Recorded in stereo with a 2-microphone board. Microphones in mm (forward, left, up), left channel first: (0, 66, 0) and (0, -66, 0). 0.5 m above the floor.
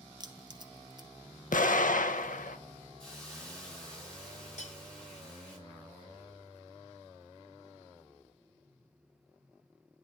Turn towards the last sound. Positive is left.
turn(degrees=60)  # may be behind; listen again after turning